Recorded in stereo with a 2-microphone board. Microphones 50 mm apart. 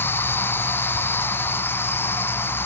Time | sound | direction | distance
0.0 | an insect | 50° left (ahead or behind) | ?